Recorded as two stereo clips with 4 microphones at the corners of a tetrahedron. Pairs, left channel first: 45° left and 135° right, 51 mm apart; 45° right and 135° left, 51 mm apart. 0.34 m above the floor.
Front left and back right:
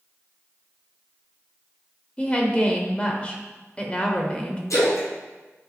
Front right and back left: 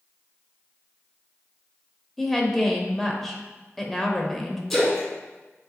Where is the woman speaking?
30° left, 0.9 m.